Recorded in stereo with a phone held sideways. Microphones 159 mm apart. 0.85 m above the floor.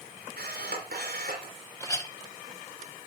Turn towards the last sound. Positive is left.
turn(degrees=20)  # may be behind; listen again after turning